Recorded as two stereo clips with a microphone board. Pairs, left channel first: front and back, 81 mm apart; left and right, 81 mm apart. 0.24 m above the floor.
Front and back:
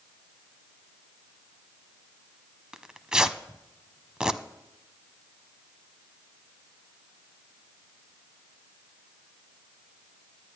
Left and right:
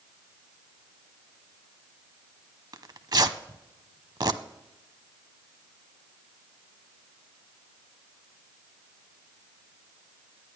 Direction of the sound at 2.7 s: 100° right.